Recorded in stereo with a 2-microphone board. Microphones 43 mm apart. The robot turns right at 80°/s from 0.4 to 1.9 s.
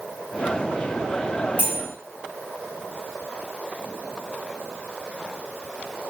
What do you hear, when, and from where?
1.6 s cutlery clinking: 35° left (ahead or behind), 1.2 m; by 1.8 s 50° left (ahead or behind), 1.2 m